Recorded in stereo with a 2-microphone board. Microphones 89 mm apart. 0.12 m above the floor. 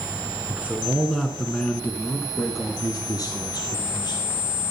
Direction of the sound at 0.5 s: 20° right (ahead or behind).